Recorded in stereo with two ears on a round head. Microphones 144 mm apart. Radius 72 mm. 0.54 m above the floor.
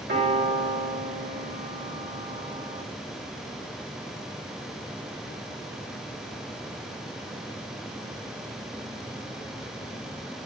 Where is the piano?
70° right (ahead or behind), 6.5 m.